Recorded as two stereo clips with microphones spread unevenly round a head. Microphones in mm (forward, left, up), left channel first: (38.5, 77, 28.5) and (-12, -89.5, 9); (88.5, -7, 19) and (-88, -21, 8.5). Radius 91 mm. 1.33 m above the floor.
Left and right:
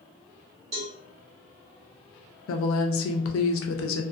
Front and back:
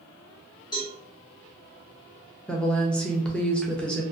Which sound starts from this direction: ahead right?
A cowbell, at 0.7 s.